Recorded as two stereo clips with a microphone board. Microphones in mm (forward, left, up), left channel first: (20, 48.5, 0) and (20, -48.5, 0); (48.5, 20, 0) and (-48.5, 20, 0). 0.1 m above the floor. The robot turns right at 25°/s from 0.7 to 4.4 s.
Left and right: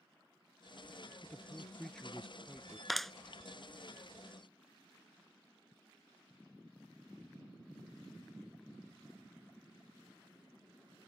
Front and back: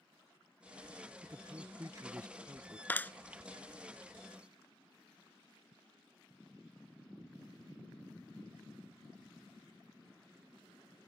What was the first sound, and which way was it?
A man speaking, 150° left.